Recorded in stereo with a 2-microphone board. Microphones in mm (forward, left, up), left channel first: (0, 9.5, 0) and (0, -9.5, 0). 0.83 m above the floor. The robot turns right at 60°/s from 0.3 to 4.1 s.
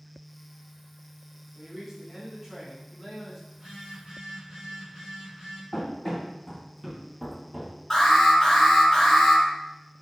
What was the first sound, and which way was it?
A man speaking, 110° right.